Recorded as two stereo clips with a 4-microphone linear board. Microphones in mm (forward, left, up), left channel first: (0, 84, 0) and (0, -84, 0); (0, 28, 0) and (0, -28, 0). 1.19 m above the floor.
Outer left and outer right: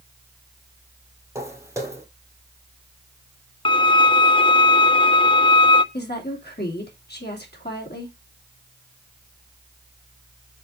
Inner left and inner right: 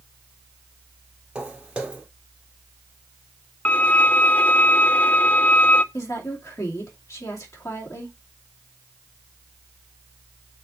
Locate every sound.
1.4 s footsteps: 15° right (ahead or behind), 2.0 m
3.6 s a violin: 30° left (ahead or behind), 0.5 m
5.9 s a woman speaking: 65° left (ahead or behind), 2.5 m